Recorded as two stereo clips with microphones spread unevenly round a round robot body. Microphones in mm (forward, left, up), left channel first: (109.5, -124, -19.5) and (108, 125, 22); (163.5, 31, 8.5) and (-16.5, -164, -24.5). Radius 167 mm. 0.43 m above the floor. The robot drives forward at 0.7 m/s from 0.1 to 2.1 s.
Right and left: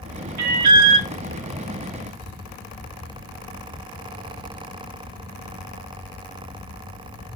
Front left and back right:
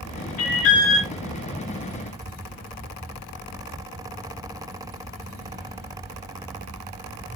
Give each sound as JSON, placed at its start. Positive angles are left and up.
{"t": 0.4, "sound": "an alarm", "azimuth_deg": 90, "distance_m": 1.1}